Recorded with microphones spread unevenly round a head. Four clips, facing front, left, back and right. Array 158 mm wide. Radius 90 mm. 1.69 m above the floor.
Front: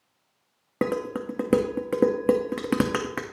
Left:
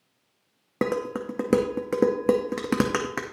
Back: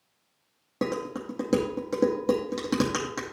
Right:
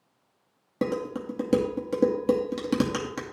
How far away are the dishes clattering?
About 0.8 m.